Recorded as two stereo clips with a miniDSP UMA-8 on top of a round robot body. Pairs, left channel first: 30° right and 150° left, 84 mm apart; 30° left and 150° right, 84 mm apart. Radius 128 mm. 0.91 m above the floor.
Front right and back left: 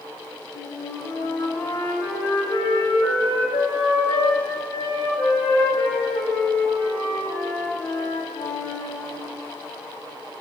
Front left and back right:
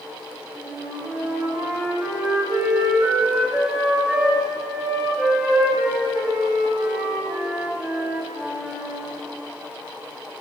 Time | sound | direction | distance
0.6 | a flute | 65° right | 3 m